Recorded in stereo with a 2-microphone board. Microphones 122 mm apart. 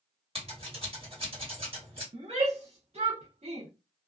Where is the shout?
60° right (ahead or behind), 0.7 m.